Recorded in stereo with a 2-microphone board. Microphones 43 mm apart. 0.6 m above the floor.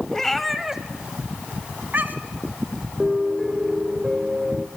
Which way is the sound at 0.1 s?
10° left (ahead or behind).